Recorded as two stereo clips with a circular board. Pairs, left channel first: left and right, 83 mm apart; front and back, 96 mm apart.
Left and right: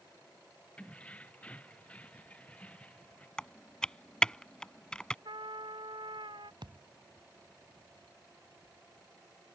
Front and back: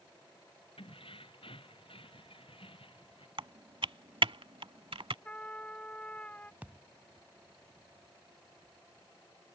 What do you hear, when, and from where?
0.8 s keys jangling: 15° left
3.4 s typing on a keyboard: 170° left
5.2 s a trumpet: 75° right
6.6 s a thud: 105° right